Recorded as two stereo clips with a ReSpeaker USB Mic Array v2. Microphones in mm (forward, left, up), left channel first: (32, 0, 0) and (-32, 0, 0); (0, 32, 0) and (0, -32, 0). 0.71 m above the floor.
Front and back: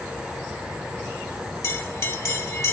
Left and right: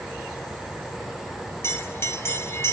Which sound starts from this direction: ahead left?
A bell, at 1.6 s.